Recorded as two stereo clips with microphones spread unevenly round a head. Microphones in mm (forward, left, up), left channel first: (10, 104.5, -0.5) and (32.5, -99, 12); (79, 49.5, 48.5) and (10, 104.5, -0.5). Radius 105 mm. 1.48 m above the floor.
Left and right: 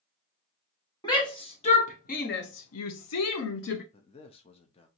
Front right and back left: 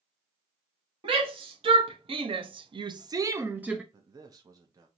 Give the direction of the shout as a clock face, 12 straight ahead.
6 o'clock.